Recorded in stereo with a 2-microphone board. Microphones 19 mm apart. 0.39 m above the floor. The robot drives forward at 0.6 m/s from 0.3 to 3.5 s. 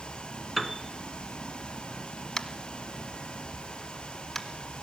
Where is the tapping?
30° left (ahead or behind), 1.3 m; by 4.5 s 20° left (ahead or behind), 1.9 m.